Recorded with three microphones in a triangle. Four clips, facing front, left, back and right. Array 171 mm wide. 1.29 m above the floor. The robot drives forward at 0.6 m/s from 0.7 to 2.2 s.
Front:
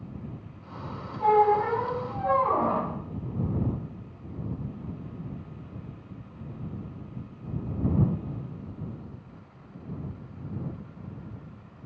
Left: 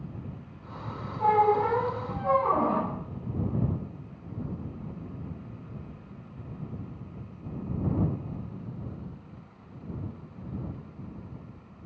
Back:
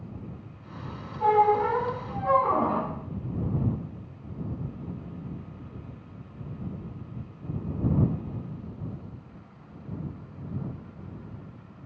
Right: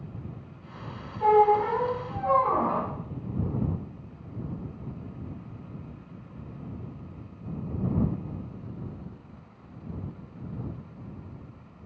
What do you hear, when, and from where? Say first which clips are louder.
1.2 s a squeak: right 2 dB, even; 120° left, 0.9 m; by 2.9 s 150° left, 1.2 m